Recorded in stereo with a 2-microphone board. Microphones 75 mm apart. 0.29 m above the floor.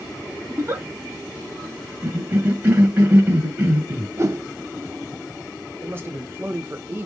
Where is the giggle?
30° right (ahead or behind), 2 m.